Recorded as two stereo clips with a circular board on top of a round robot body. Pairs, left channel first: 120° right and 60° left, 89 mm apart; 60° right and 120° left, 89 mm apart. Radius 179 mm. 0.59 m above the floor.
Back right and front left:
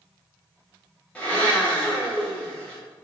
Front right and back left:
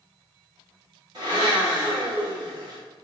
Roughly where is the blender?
Behind.